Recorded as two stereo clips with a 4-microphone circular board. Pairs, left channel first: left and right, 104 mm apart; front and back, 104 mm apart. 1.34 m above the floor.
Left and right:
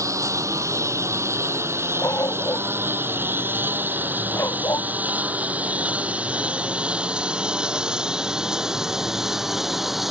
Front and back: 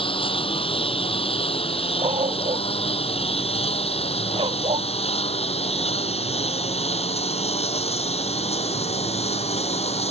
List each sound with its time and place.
0.0 s a lawn mower: 30° right; by 10.1 s straight ahead
2.0 s a dog barking: 155° left